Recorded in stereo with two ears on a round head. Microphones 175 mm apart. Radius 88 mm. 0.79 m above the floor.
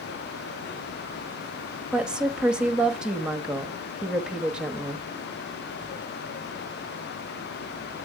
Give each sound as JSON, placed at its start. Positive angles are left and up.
{"t": 1.9, "sound": "a woman speaking", "side_deg": -5, "distance_m": 0.9}